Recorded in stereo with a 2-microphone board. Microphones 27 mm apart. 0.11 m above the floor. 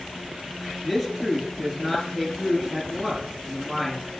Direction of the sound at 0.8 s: 5° right (ahead or behind).